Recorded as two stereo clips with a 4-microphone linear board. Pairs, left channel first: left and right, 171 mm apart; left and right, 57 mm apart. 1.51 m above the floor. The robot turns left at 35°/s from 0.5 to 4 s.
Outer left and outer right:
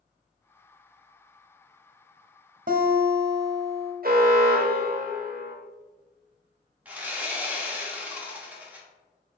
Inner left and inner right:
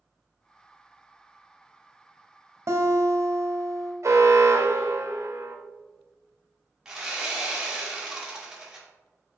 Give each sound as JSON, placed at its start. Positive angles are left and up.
{"t": 2.7, "sound": "a guitar", "azimuth_deg": -55, "distance_m": 0.6}
{"t": 4.0, "sound": "an alarm", "side_deg": -60, "distance_m": 0.7}
{"t": 6.8, "sound": "sawing", "side_deg": -10, "distance_m": 0.9}